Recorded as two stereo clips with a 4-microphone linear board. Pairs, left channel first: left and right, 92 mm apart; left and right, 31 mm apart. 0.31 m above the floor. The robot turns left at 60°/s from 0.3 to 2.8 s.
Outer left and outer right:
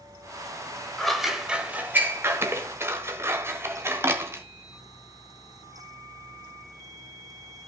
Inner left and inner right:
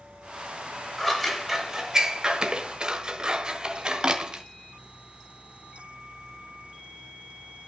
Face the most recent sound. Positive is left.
turn(degrees=-30)  # may be behind; listen again after turning